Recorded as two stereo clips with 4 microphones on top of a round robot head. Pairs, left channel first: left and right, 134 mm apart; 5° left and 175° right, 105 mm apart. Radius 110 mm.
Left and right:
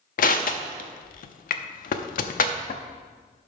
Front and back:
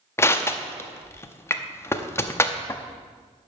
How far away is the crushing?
About 0.7 m.